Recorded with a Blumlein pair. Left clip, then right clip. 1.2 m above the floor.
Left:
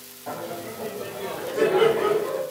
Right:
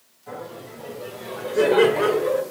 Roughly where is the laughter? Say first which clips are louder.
Left 3 dB; ahead left.